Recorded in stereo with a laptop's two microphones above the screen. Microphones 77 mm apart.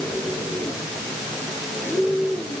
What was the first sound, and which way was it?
Only background noise.